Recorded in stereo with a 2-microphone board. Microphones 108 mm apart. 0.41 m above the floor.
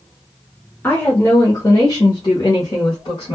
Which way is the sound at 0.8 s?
15° left (ahead or behind).